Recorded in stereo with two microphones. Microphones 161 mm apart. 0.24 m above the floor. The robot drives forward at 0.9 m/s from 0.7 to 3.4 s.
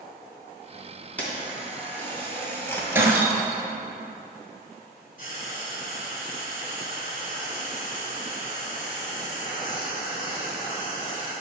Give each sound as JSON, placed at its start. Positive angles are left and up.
{"t": 1.2, "sound": "a camera shutter", "side_deg": 10, "distance_m": 2.5}
{"t": 3.0, "sound": "breaking glass", "side_deg": -15, "distance_m": 1.3}
{"t": 5.2, "sound": "frying", "side_deg": 50, "distance_m": 3.0}